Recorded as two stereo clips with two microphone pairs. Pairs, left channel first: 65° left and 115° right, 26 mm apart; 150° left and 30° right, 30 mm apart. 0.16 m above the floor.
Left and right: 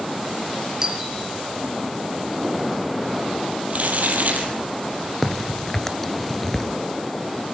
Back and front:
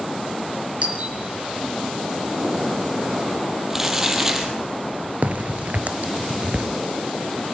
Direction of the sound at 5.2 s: 5° right.